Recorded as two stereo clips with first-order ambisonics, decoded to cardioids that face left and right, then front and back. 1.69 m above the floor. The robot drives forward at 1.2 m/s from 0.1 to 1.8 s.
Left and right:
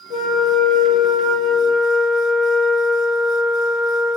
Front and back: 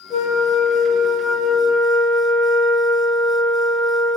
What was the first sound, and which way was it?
A flute, 50° left.